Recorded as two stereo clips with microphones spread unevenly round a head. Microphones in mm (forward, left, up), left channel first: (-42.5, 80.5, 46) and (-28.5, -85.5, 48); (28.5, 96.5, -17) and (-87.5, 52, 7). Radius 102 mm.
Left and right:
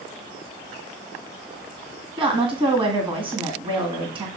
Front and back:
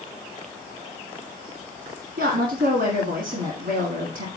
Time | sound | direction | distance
2.2 | a woman speaking | 145° right | 1.7 m